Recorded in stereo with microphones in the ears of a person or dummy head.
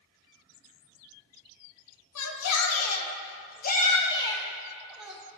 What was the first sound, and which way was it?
A shout, 90° left.